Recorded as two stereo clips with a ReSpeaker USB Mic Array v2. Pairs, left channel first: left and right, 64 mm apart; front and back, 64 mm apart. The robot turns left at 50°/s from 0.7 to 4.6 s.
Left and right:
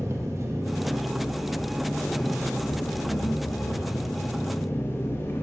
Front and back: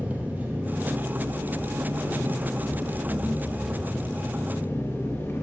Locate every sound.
0.0 s an engine running: 120° right, 0.7 m; by 5.4 s 45° left, 0.7 m